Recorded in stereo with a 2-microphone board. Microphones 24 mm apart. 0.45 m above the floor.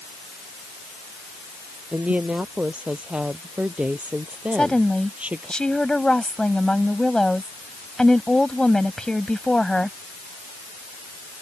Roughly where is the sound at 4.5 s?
Left.